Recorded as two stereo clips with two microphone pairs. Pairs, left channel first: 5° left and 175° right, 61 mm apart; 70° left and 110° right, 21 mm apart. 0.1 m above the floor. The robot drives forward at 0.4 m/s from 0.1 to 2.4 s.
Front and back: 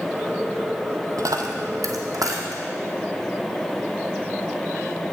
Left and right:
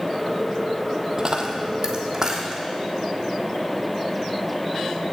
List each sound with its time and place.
1.2 s a dropped coin: 165° right, 0.8 m; by 2.6 s 170° right, 1.3 m